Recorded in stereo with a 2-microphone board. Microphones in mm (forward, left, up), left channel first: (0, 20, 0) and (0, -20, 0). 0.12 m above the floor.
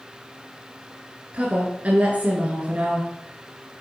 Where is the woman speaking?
35° right (ahead or behind), 1.3 m.